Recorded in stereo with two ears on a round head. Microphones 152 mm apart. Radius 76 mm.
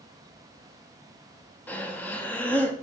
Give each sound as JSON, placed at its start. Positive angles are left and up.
{"t": 1.7, "sound": "breathing", "side_deg": 10, "distance_m": 0.7}